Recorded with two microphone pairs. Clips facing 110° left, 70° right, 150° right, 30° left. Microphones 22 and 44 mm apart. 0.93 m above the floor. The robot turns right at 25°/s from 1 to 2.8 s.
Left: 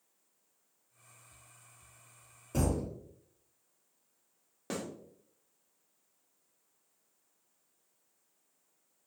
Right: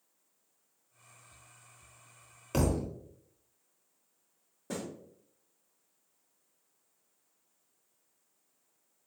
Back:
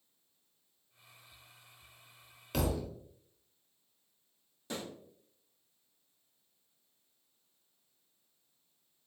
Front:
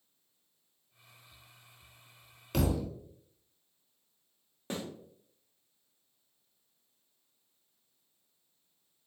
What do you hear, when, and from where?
2.5 s a thud: 60° right, 0.7 m; by 2.9 s 50° right, 0.7 m
4.7 s a snare drum: 85° left, 1.3 m